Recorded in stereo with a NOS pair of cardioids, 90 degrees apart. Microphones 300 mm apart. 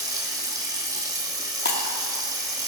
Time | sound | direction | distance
0.0 | running water | 10° right | 2.5 m
1.6 | breaking glass | 35° left | 1.9 m